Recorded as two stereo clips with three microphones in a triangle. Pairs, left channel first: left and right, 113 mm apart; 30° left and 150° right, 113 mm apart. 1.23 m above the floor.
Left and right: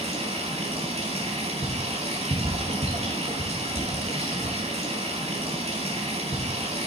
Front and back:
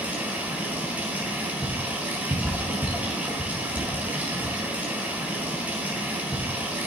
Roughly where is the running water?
Right.